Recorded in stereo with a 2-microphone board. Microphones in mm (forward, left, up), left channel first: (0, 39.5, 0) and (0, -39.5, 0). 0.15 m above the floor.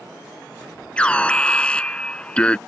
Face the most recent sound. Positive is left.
turn(degrees=15)  # may be behind; listen again after turning